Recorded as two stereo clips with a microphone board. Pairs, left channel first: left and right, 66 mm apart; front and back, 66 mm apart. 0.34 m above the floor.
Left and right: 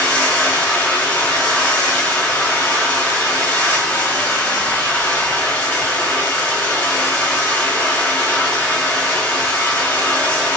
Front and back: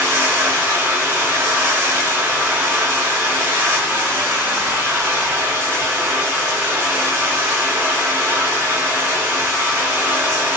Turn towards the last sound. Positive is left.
turn(degrees=140)